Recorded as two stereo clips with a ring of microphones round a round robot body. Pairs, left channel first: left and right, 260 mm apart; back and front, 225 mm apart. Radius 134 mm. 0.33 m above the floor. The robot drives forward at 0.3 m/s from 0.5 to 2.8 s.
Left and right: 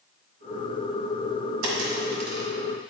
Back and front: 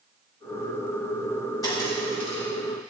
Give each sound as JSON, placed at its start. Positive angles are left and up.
{"t": 1.6, "sound": "a dropped coin", "azimuth_deg": -105, "distance_m": 1.4}